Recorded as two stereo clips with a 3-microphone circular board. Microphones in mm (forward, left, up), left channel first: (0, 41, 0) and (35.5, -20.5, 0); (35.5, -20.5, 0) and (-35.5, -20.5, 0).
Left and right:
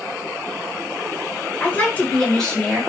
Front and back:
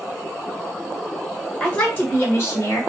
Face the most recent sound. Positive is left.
turn(degrees=30)